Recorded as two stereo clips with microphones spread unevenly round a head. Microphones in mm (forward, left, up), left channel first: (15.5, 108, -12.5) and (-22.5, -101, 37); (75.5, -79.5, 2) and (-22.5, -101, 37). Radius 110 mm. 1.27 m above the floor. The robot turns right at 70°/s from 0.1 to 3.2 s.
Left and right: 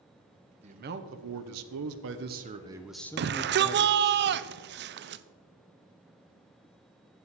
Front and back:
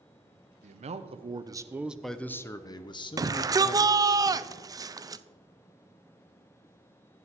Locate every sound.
0.6 s a man speaking: 165° right, 0.8 m; by 4.2 s 15° left, 0.8 m
3.2 s a shout: 110° right, 0.6 m; by 5.2 s 105° right, 0.6 m